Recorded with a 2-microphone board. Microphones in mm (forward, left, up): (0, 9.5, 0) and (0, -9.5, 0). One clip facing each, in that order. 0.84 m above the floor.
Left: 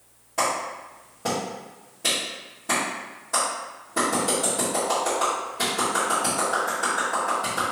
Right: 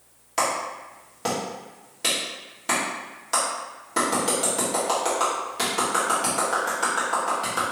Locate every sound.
0.4 s a clap: 65° right (ahead or behind), 1.8 m